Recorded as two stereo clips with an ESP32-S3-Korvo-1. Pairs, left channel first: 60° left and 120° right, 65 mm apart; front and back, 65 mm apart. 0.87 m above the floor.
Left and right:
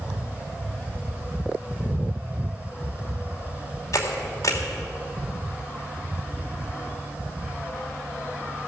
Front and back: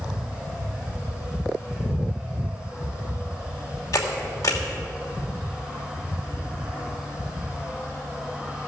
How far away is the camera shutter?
About 2.5 m.